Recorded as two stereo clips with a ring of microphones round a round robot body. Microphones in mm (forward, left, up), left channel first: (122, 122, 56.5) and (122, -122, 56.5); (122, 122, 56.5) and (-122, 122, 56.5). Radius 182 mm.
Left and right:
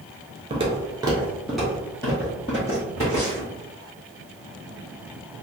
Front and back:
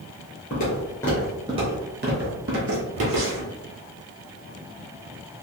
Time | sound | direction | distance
0.5 | footsteps | 35° right | 0.8 m